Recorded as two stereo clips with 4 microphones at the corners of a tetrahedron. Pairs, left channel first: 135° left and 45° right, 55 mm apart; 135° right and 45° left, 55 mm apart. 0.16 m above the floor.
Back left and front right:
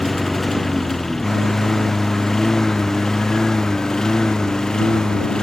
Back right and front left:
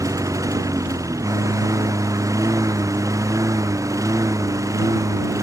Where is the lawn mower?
50° left; by 5.4 s 60° left.